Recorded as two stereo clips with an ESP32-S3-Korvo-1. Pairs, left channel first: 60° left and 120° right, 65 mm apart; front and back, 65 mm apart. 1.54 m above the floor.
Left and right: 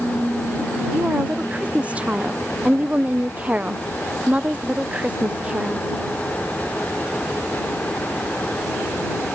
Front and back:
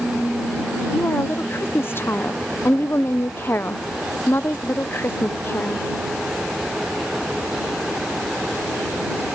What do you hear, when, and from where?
0.9 s a woman speaking: 55° right